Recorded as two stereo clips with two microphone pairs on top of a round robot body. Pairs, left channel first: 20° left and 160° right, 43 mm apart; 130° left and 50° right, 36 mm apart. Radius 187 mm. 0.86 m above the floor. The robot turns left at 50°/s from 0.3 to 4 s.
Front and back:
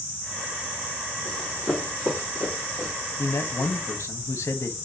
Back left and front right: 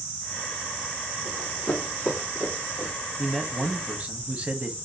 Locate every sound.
1.2 s running footsteps: 105° left, 1.1 m; by 2.9 s 65° right, 1.2 m
3.2 s a man speaking: 50° left, 0.8 m; by 4.7 s 10° left, 0.8 m